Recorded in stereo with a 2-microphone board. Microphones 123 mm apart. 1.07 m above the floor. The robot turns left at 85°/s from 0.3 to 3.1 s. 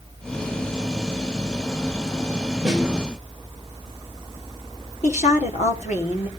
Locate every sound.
2.6 s a snare drum: 5° right (ahead or behind), 2.5 m; by 2.8 s 10° left (ahead or behind), 2.5 m
5.0 s a woman speaking: 75° left (ahead or behind), 2.5 m